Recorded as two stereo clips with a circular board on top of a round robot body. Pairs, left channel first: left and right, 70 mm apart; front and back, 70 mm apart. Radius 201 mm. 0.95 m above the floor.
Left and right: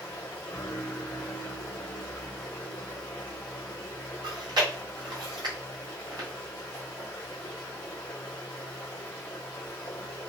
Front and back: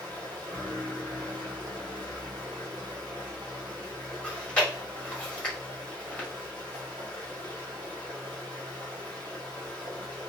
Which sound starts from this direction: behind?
Running water, at 0.0 s.